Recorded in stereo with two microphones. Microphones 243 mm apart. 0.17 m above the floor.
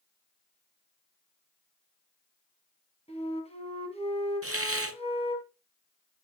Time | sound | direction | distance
3.1 | a flute | 25° left (ahead or behind) | 1.8 m
4.4 | a hiss | 80° right | 0.6 m